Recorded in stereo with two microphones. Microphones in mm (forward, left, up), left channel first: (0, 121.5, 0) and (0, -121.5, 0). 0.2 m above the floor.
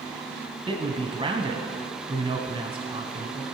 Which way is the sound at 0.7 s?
20° right (ahead or behind).